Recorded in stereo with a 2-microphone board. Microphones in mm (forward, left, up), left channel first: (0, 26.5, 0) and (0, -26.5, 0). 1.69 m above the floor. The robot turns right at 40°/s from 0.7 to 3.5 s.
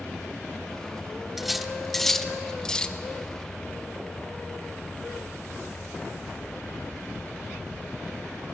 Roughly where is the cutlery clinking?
Centre.